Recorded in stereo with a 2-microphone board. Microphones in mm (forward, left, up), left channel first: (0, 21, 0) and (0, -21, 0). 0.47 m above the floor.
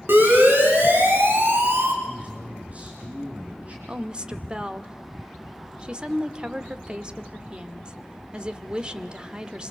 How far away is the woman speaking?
About 1.2 m.